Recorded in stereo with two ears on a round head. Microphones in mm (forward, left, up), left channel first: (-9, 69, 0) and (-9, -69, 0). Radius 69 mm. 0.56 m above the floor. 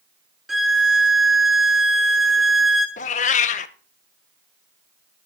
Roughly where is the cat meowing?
Left.